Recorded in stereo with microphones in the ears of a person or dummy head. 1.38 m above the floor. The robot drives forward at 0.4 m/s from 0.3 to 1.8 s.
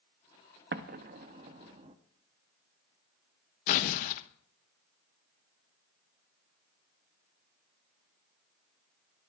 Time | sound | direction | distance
0.7 | an explosion | 60° right (ahead or behind) | 0.7 m
3.7 | tearing paper | 65° left (ahead or behind) | 1.0 m